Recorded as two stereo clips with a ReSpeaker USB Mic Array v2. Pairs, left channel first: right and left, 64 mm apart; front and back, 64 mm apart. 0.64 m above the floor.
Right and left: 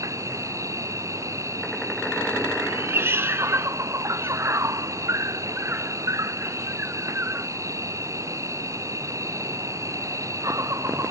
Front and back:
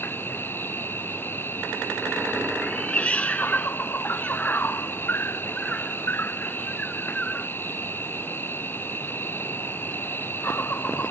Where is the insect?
55° left.